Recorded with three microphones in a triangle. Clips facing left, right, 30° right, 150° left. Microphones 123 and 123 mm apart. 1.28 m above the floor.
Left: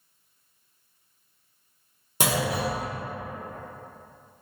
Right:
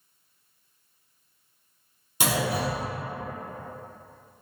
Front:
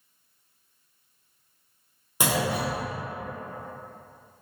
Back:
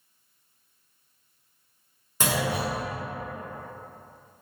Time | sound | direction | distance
2.2 | a clunk | 45° left | 1.0 m